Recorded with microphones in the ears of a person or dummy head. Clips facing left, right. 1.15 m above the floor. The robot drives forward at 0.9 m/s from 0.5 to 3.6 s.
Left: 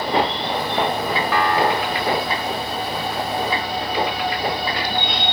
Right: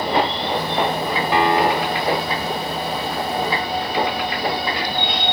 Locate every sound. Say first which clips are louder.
1.3 s a piano: right 3 dB; 15° right (ahead or behind)